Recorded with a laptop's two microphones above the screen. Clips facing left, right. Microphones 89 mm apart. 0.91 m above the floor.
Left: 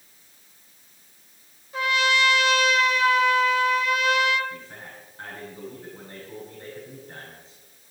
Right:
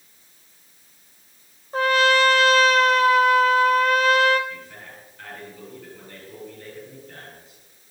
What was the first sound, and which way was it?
A trumpet, 45° right (ahead or behind).